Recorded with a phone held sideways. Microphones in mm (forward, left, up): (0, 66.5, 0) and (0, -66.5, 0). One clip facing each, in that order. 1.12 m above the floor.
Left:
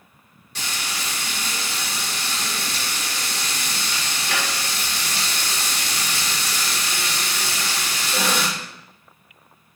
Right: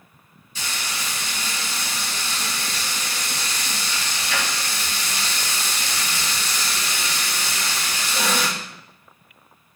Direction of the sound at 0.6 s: 85° left.